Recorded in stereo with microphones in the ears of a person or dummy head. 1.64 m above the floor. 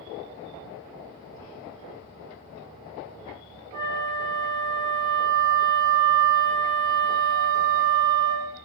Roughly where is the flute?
Right.